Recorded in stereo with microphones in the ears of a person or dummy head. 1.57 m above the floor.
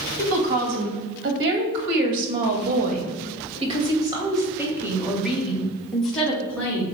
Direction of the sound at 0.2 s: 85° right.